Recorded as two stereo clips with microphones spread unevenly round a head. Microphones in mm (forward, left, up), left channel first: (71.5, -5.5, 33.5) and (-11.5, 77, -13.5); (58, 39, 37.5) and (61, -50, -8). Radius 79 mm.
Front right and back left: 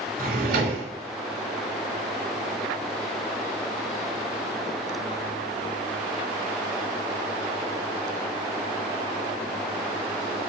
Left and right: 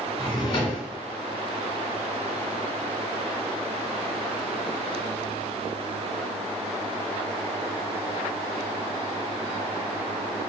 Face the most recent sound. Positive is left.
turn(degrees=140)